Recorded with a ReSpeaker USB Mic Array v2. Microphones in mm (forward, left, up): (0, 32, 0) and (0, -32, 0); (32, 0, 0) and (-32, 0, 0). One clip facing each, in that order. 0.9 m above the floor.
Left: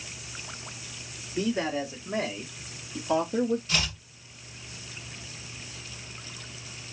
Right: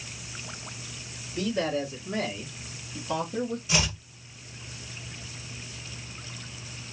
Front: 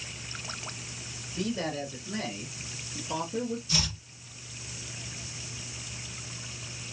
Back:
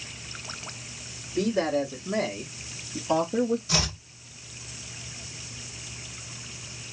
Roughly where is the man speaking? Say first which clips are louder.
Even, back 7 dB; behind left.